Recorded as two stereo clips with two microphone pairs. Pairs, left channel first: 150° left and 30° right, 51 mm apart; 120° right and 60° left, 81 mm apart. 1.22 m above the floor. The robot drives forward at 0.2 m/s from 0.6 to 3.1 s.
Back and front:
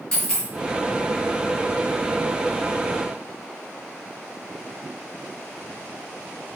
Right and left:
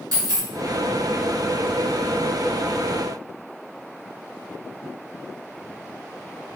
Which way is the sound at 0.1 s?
80° left.